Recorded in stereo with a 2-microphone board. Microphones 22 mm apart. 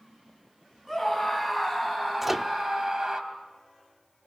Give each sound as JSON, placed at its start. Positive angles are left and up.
{"t": 0.9, "sound": "a scream", "side_deg": 5, "distance_m": 4.0}
{"t": 2.2, "sound": "a microwave", "side_deg": -15, "distance_m": 0.9}